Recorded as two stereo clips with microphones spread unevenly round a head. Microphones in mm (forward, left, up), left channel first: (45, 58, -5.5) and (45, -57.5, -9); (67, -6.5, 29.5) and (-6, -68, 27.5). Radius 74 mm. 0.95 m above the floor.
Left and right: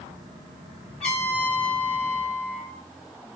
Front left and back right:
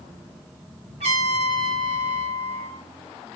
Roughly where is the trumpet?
Behind.